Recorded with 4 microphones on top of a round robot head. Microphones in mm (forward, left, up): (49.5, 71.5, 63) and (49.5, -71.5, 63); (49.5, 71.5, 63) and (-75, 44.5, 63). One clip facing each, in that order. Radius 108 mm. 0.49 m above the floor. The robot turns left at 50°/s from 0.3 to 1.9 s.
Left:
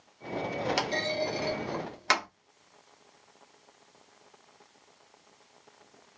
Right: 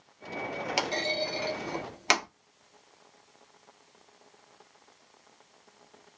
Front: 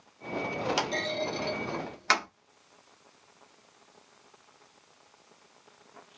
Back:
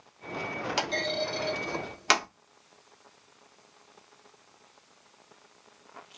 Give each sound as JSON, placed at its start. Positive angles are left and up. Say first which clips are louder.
{"t": 0.8, "sound": "a clunk", "louder": "left 1 dB, even", "azimuth_deg": -65, "distance_m": 0.9}